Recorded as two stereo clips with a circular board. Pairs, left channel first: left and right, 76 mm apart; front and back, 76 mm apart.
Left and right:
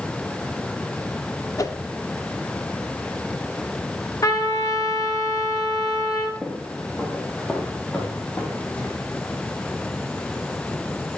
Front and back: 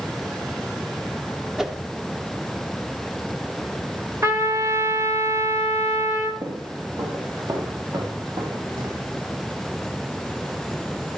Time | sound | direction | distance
1.6 | a whoosh | 100° left | 1.1 m
4.2 | a trumpet | 135° left | 1.7 m
6.4 | footsteps | 170° left | 2 m